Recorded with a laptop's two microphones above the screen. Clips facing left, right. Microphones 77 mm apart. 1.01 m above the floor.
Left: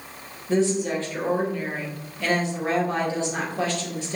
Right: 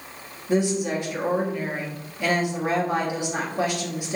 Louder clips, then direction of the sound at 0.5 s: Left 1 dB; 15° right (ahead or behind).